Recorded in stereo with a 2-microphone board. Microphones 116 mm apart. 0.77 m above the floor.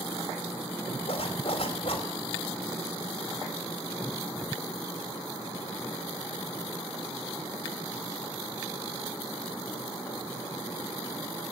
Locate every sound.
1.1 s a zipper: 55° left (ahead or behind), 2.5 m